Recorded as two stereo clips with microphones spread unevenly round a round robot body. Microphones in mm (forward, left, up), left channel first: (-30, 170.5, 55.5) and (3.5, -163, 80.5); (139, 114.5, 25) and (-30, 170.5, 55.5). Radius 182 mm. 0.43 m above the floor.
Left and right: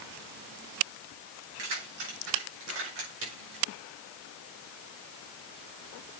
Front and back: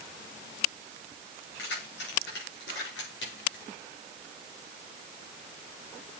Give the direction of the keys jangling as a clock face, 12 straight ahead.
1 o'clock.